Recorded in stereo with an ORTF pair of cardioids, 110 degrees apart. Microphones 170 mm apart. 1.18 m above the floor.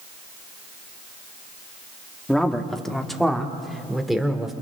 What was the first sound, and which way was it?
A man speaking, 5° left.